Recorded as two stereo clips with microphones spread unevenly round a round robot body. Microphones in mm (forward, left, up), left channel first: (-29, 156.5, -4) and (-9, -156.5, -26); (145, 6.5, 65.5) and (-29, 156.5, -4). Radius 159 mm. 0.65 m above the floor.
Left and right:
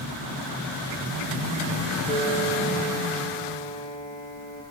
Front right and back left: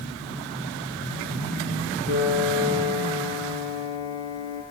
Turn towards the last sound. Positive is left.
turn(degrees=-25)